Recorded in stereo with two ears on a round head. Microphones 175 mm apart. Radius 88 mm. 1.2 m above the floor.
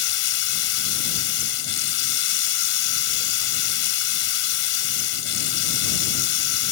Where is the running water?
75° left (ahead or behind).